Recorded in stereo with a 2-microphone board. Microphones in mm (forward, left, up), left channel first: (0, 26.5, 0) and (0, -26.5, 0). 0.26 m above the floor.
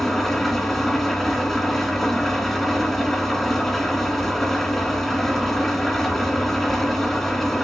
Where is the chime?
No chime in this recording.